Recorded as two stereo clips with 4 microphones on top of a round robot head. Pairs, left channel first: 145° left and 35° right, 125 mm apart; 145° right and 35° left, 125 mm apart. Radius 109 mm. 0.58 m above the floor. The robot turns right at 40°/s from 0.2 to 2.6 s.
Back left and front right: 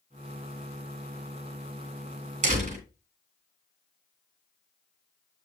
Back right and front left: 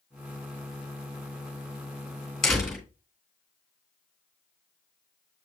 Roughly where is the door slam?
Ahead right.